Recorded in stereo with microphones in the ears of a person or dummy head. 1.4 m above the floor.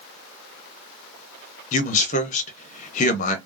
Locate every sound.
1.7 s a man speaking: 40° left (ahead or behind), 0.8 m